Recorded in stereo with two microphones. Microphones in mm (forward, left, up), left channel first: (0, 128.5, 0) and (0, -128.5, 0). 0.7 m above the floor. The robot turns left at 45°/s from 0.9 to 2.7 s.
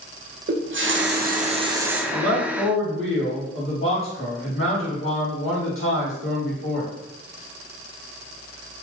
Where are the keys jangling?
No keys jangling in this recording.